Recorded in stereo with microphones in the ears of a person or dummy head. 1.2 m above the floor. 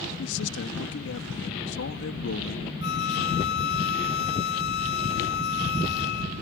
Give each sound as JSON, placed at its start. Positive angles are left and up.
{"t": 0.2, "sound": "a man speaking", "side_deg": 70}
{"t": 2.8, "sound": "a flute", "side_deg": 65}